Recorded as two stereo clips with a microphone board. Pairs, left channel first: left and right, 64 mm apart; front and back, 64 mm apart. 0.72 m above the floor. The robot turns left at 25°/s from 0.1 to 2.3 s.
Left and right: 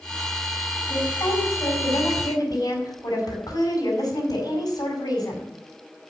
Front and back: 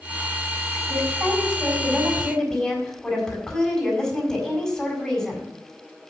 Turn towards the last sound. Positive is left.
turn(degrees=80)